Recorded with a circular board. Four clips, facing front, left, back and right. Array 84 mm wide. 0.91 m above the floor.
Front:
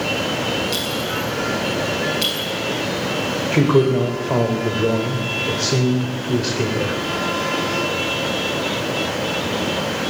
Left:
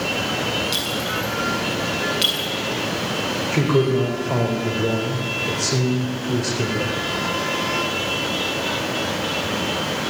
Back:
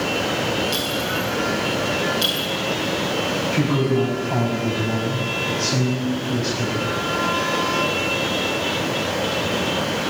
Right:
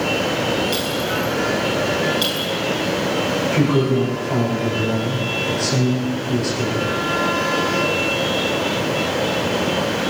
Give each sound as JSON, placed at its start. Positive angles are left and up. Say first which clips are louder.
{"t": 0.7, "sound": "a clink", "louder": "right 4 dB, even", "azimuth_deg": 60, "distance_m": 7.5}
{"t": 3.5, "sound": "a man speaking", "louder": "even, front 6 dB", "azimuth_deg": 15, "distance_m": 4.0}